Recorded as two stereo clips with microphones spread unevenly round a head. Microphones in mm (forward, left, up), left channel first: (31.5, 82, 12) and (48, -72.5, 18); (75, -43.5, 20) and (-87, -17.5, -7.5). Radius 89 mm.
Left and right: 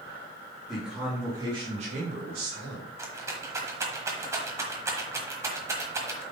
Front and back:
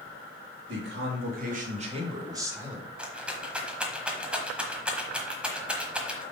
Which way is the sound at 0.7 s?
175° right.